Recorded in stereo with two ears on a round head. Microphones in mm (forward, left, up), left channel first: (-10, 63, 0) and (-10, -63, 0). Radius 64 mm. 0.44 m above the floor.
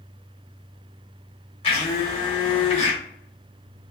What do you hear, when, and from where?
1.6 s a blender: 35° left (ahead or behind), 1.2 m